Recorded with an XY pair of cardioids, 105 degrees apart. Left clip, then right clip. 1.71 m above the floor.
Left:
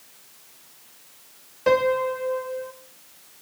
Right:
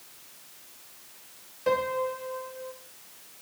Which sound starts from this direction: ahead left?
A piano, at 1.7 s.